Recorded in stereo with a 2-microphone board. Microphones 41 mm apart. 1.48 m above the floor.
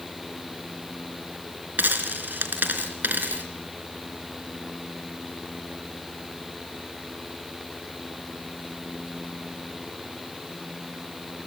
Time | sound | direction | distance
1.8 | a dropped coin | 50° right (ahead or behind) | 3 m